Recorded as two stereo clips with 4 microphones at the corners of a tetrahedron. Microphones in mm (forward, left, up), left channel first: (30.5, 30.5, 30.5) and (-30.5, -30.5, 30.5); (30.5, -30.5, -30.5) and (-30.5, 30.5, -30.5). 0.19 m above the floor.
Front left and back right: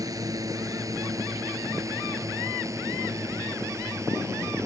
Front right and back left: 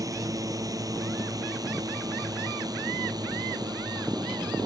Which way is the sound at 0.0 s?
Straight behind.